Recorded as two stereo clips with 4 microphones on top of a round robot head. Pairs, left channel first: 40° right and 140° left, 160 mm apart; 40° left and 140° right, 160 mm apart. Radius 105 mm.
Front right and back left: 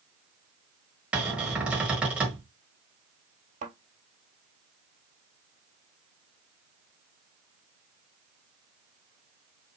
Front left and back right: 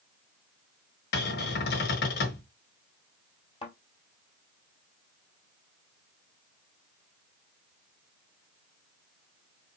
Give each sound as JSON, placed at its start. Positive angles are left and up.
{"t": 1.1, "sound": "a cupboard door", "azimuth_deg": 60, "distance_m": 1.2}
{"t": 3.6, "sound": "a thud", "azimuth_deg": 95, "distance_m": 1.8}